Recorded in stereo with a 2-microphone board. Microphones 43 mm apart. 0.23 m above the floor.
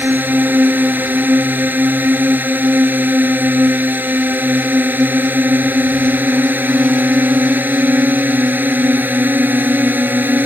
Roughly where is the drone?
Right.